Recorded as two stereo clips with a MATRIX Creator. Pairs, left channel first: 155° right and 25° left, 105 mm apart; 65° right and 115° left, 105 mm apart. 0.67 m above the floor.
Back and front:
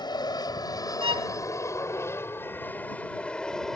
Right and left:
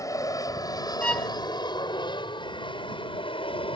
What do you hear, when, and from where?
0.0 s an aircraft: 120° right; by 3.8 s 70° right
1.0 s a violin: 10° left